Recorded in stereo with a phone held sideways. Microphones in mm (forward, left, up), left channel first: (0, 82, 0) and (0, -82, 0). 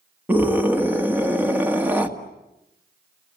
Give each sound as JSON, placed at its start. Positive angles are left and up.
{"t": 0.3, "sound": "a scream", "side_deg": -10, "distance_m": 1.8}